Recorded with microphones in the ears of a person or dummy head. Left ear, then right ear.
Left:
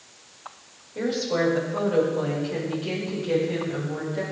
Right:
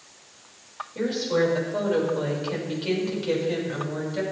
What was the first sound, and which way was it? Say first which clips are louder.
A woman speaking: right 1 dB; 15° right (ahead or behind).